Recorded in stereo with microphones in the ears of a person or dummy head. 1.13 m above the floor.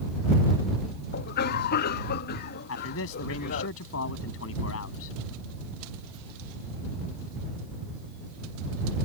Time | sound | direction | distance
1.1 | a cough | 60° left (ahead or behind) | ?
2.7 | a man speaking | 75° left (ahead or behind) | ?